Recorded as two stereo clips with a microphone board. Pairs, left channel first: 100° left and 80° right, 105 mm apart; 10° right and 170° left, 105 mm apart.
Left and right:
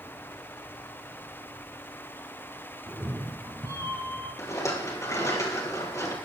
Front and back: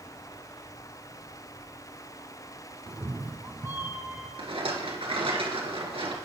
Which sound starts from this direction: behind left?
A rattle, at 4.4 s.